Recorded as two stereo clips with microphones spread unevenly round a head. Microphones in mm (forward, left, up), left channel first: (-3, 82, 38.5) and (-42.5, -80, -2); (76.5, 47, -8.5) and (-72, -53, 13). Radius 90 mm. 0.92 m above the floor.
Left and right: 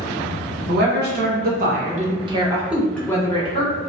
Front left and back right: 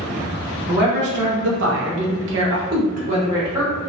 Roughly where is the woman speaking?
Right.